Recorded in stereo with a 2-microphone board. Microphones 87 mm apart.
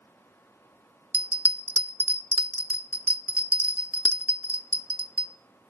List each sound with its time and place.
1.1 s a bell: 15° right (ahead or behind), 0.6 m